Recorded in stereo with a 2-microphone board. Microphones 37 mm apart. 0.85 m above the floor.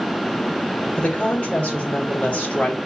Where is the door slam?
I don't hear a door slam.